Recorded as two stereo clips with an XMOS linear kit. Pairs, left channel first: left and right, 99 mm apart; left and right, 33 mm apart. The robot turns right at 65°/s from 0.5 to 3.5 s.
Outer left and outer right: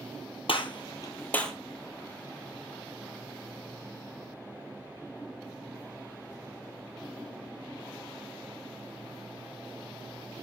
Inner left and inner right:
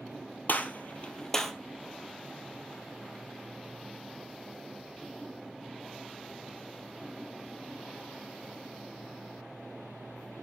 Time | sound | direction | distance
0.5 | a gunshot | 70° left (ahead or behind) | 1.4 m